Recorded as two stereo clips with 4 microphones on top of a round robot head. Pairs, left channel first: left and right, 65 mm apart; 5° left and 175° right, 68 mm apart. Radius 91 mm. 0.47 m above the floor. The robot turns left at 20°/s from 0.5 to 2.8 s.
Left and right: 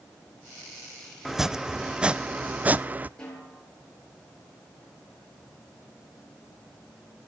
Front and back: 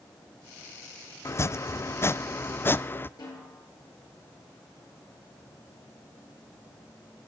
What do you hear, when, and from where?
1.2 s chopping: 5° right, 0.7 m; by 3.1 s 35° right, 0.7 m
3.2 s a snare drum: 10° left, 10 m